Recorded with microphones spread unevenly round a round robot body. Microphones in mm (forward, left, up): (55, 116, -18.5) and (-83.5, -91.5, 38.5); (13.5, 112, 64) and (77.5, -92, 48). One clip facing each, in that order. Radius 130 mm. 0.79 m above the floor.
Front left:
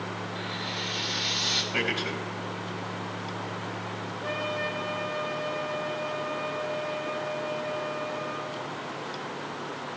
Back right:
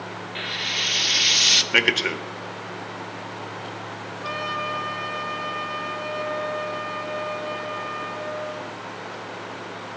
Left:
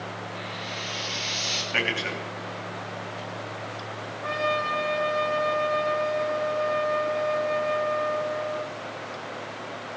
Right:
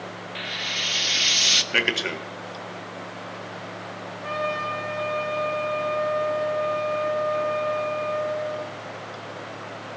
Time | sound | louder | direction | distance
0.3 | frying | even, even | 85° right | 0.7 m
1.7 | a man speaking | back right 6 dB, right 3 dB | 110° right | 1.4 m
4.2 | a trumpet | front left 1 dB, left 1 dB | 160° left | 7 m